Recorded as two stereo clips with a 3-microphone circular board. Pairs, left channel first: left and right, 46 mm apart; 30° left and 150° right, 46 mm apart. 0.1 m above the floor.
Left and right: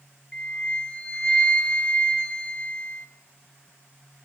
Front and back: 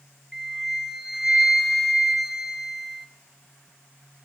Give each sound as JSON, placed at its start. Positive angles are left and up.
{"t": 0.3, "sound": "a flute", "azimuth_deg": 135, "distance_m": 0.8}